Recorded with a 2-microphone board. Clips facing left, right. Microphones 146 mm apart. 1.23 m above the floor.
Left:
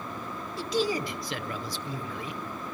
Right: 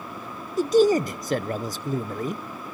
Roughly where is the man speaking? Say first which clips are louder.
Right 11 dB; right.